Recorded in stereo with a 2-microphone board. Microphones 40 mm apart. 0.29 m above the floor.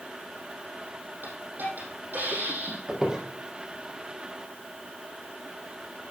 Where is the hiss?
55° right (ahead or behind), 5 m.